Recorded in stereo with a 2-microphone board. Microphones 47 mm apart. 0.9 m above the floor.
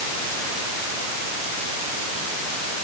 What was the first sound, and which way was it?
Only background noise.